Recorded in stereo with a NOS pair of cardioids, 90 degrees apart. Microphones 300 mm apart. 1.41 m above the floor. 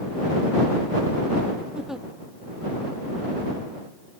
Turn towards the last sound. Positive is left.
turn(degrees=0)